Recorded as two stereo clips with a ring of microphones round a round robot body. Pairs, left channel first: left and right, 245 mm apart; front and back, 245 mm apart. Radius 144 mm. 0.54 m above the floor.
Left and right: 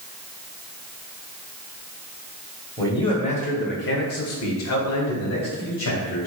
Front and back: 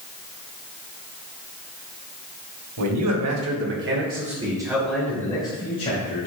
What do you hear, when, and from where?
2.8 s a man speaking: 170° left, 2.5 m; by 6.3 s 60° left, 3 m